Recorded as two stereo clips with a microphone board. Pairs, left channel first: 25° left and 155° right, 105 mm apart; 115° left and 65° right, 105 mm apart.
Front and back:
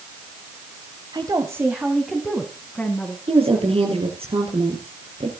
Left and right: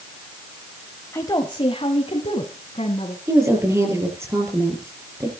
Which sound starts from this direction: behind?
A woman speaking, at 1.1 s.